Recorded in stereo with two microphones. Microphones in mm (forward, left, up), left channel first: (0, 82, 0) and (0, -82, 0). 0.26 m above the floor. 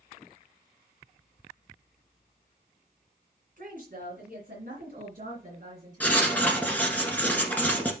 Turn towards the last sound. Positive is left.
turn(degrees=10)  # may be behind; listen again after turning